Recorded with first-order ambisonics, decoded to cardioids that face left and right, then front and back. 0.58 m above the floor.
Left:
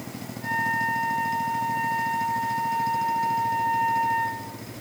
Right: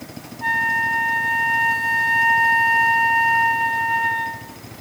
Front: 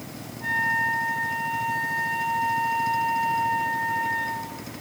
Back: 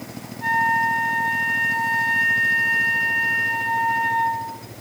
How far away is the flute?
About 0.8 m.